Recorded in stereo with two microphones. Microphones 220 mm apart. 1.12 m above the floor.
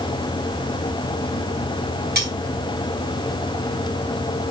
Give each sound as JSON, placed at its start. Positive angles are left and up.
{"t": 2.1, "sound": "cutlery clinking", "side_deg": -45, "distance_m": 5.5}